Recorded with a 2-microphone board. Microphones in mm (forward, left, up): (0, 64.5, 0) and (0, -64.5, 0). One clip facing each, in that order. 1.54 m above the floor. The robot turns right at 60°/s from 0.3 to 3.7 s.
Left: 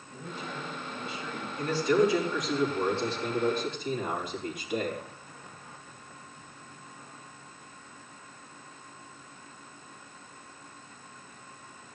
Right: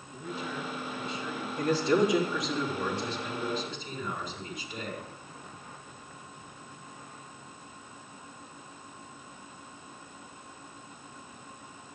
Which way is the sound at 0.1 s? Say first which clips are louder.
Right 2 dB; 125° left.